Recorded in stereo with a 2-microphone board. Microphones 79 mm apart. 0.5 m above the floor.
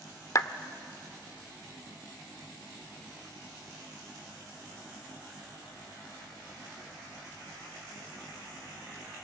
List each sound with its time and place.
0.3 s a clap: 45° left (ahead or behind), 0.7 m